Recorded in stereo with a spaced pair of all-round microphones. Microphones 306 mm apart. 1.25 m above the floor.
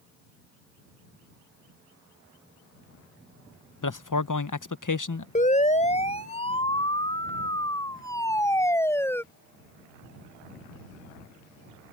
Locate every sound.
3.8 s a man speaking: 80° left
5.3 s a siren: 25° left (ahead or behind); by 9.2 s 5° left (ahead or behind)